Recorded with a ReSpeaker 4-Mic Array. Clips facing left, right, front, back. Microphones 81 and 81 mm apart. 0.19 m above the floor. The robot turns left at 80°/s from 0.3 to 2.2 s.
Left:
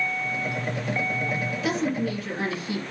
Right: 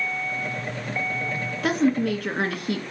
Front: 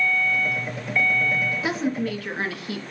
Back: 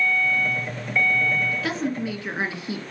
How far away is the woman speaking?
About 2.5 m.